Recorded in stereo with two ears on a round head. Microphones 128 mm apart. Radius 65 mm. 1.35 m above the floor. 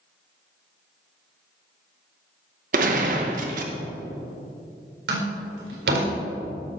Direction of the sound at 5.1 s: 90° right.